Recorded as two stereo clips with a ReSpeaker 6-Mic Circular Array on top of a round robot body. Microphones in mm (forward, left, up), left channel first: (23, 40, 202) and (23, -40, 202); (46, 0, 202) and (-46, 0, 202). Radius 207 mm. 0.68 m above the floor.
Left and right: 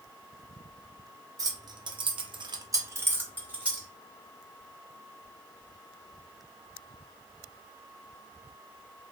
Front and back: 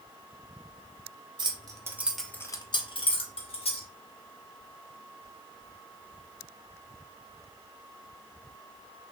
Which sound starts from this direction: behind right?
Keys jangling, at 1.4 s.